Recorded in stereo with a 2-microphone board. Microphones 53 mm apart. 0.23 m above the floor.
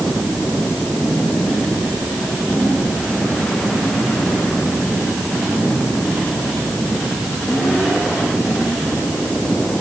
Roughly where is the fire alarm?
No fire alarm in this recording.